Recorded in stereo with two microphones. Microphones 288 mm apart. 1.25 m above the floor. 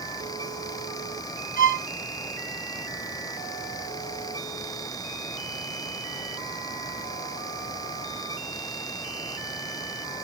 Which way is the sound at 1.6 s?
30° left (ahead or behind).